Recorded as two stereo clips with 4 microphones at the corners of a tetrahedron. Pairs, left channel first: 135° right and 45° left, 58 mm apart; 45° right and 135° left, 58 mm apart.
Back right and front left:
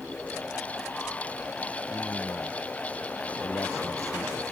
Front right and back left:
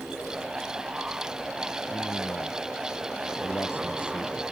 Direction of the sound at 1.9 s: 95° right.